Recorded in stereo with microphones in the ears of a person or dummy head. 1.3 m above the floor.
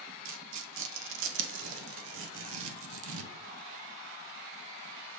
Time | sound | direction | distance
0.2 | tearing paper | 85° right | 1.0 m